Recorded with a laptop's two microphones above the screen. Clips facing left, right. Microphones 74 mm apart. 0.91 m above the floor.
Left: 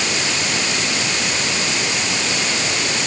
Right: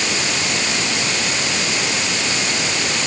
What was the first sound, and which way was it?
Only background noise.